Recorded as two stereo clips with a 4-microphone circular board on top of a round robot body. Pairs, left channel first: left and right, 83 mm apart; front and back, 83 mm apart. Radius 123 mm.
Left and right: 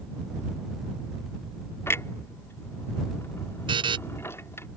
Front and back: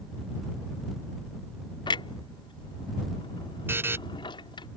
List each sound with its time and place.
1.9 s a clunk: 30° left
3.7 s a buzzer: 115° right